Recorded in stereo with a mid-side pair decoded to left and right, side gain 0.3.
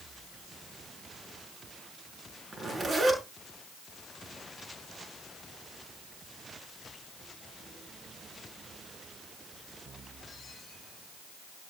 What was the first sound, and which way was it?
A zipper, 45° right.